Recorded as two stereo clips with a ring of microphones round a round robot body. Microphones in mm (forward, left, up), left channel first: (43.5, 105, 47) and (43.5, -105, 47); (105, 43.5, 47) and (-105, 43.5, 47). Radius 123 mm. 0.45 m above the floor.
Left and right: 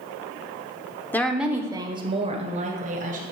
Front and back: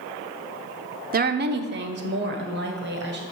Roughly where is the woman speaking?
Behind.